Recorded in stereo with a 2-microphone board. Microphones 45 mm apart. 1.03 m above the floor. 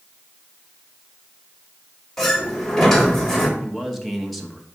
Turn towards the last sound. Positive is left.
turn(degrees=0)  # may be behind; listen again after turning